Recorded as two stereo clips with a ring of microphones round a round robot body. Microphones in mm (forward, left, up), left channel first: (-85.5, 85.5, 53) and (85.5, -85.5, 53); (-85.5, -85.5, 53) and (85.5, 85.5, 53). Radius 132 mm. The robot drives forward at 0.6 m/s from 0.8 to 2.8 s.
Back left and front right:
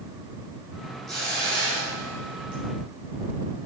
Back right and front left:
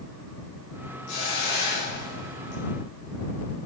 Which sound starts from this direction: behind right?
A hiss, at 1.1 s.